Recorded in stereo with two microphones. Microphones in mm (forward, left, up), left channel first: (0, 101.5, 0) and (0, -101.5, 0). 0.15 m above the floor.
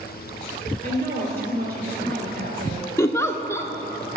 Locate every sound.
0.8 s a woman speaking: 50° right (ahead or behind), 2.5 m
3.0 s a giggle: 15° left (ahead or behind), 0.6 m